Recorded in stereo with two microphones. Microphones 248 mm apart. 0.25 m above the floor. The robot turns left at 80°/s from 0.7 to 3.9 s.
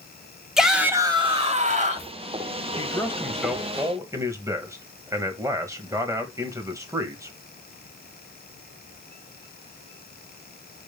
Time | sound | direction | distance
0.6 | a shout | centre (ahead or behind) | 1.3 m
2.8 | a man speaking | 15° left (ahead or behind) | 1.3 m